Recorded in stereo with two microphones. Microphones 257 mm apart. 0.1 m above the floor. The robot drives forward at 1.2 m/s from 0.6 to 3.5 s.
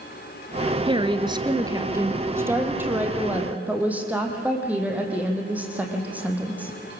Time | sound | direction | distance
0.9 | a woman speaking | 20° right (ahead or behind) | 1.1 m